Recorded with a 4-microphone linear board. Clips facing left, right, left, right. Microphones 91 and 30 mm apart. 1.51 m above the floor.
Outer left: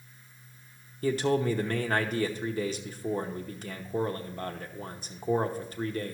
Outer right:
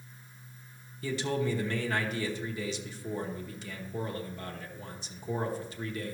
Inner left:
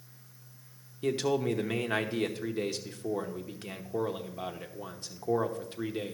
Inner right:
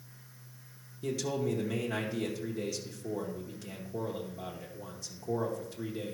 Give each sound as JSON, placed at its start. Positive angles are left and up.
{"t": 1.0, "sound": "a man speaking", "side_deg": 45, "distance_m": 1.0}